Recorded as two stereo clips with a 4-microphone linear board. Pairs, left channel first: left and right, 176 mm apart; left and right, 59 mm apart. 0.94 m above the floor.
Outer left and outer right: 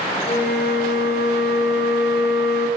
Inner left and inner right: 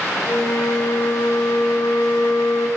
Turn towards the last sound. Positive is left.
turn(degrees=65)  # may be behind; listen again after turning